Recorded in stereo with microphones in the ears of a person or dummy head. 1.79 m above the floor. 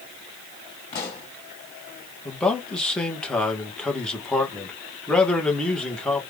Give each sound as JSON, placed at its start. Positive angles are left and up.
{"t": 0.9, "sound": "a pop", "side_deg": 35, "distance_m": 2.0}
{"t": 2.2, "sound": "a man speaking", "side_deg": 5, "distance_m": 1.4}